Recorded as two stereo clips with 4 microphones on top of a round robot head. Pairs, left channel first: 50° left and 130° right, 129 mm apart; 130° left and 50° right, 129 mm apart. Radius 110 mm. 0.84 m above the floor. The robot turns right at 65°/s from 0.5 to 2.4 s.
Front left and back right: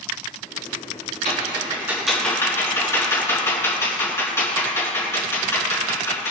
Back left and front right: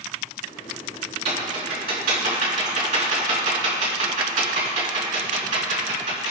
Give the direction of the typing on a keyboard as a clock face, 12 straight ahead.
3 o'clock.